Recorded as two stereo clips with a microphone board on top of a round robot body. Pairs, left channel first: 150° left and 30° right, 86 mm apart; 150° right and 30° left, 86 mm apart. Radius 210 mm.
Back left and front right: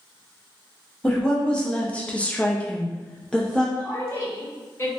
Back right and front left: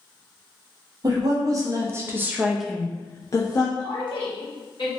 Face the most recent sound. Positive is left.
turn(degrees=-150)